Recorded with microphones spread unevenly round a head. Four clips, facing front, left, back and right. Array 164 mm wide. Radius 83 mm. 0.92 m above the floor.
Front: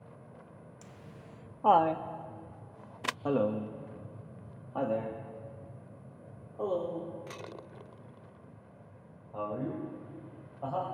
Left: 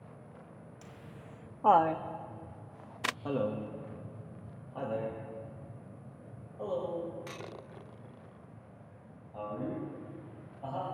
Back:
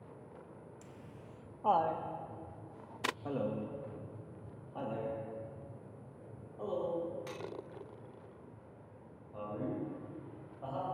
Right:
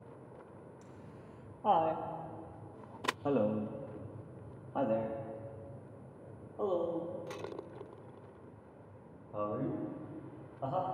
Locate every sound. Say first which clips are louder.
0.8 s laughter: left 1 dB, front 1 dB; 60° left, 1.1 m; by 10.9 s 55° right, 5 m